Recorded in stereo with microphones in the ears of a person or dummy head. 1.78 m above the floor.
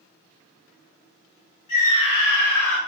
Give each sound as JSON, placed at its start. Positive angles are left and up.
{"t": 1.7, "sound": "a scream", "side_deg": 45, "distance_m": 1.2}